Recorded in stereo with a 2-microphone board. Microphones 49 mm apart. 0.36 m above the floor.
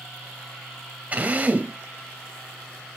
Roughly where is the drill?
Right.